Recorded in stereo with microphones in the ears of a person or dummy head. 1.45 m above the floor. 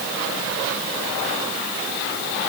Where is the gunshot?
No gunshot in this recording.